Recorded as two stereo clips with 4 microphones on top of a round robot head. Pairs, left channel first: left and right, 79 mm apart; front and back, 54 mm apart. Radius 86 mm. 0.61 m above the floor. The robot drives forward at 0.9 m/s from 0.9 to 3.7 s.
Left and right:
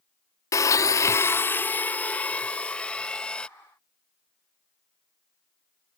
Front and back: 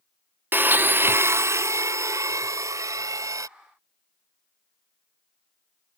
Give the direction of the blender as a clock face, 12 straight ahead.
8 o'clock.